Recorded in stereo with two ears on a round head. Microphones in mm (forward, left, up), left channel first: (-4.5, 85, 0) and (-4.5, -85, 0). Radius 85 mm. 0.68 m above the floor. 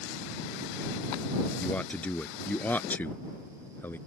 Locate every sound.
1.6 s a man speaking: 10° left (ahead or behind)